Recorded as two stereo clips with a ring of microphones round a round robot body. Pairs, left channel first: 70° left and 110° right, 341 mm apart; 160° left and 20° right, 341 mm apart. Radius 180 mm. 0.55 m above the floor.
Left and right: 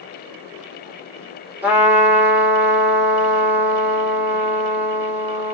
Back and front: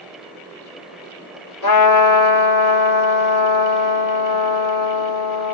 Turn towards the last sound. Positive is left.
turn(degrees=165)